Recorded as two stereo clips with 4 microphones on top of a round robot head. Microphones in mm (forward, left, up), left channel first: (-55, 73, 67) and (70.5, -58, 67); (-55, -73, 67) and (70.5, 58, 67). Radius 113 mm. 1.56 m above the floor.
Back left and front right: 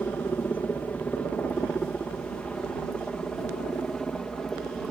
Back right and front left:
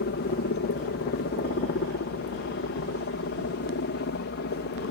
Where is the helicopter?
145° right; by 4.9 s 140° right.